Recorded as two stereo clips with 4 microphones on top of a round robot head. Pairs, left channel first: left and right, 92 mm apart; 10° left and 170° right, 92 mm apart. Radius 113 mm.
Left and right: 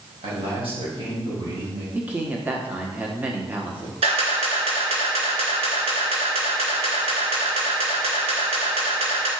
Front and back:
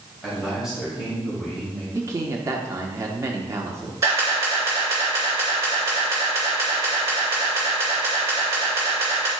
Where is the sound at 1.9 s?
150° right, 1.2 m.